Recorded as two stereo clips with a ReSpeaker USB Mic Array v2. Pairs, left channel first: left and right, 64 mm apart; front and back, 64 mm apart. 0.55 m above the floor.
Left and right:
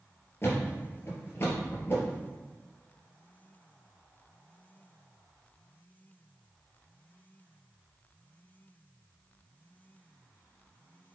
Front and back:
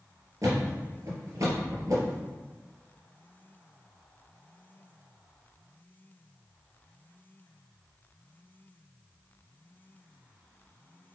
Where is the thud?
145° left, 3 m.